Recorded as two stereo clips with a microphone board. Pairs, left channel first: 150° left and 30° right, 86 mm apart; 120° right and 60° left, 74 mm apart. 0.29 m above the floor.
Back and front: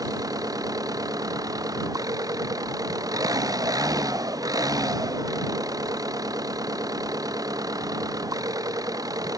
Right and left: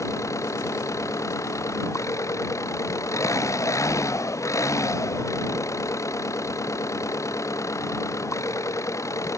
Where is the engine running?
75° right.